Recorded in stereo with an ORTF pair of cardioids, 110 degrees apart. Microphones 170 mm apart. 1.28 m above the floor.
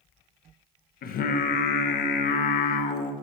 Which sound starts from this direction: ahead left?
Singing, at 1.0 s.